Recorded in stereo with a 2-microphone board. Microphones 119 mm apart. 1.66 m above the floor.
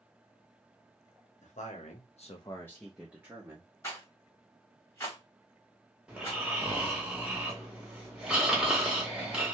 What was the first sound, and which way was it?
A man speaking, 80° left.